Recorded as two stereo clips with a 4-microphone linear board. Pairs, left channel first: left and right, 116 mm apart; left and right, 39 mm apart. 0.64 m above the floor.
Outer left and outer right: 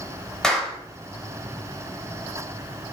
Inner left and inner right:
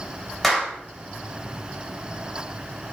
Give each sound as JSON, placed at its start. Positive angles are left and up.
{"t": 0.4, "sound": "a clap", "side_deg": 5, "distance_m": 2.5}